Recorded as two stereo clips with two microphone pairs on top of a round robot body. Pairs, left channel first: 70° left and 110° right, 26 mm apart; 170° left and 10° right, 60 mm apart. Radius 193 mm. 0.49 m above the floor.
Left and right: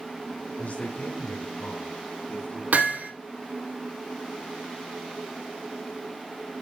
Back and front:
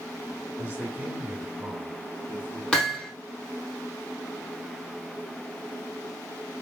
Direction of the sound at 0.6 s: 55° left.